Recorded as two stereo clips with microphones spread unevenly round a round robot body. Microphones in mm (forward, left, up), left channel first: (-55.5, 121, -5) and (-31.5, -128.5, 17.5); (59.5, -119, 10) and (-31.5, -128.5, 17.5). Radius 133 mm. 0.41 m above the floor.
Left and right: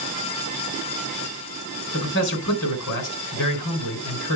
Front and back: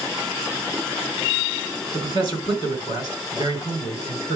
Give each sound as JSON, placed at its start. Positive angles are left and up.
{"t": 1.9, "sound": "a man speaking", "azimuth_deg": 50, "distance_m": 4.5}